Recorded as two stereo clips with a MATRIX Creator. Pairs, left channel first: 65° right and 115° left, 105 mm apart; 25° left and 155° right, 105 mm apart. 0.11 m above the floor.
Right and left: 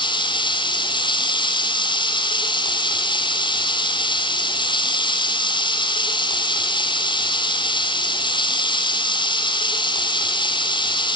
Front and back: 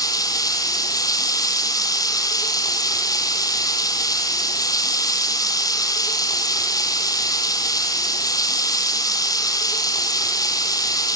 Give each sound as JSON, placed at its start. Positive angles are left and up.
{"t": 0.0, "sound": "running water", "azimuth_deg": -30, "distance_m": 2.5}